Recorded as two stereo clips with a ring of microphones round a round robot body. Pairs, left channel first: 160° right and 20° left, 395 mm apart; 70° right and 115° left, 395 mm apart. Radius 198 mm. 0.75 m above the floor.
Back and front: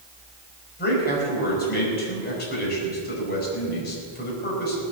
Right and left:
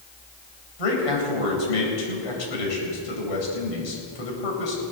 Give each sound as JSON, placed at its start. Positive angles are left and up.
{"t": 0.8, "sound": "a man speaking", "azimuth_deg": -90, "distance_m": 5.0}